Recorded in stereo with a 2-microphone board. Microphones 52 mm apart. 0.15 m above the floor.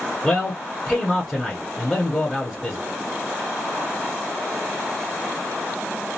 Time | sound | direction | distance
0.2 | a man speaking | centre (ahead or behind) | 1.5 m